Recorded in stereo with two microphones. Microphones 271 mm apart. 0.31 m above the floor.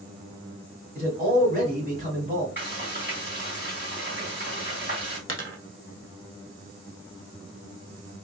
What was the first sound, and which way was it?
A man speaking, 35° right (ahead or behind).